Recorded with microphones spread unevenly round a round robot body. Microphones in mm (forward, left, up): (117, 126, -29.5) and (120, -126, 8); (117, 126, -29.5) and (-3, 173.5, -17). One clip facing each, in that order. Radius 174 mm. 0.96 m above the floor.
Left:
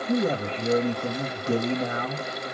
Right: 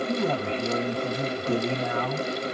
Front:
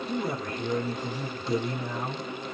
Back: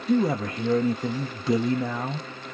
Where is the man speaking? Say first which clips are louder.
Left 6 dB, back 10 dB; 160° left, 0.7 m.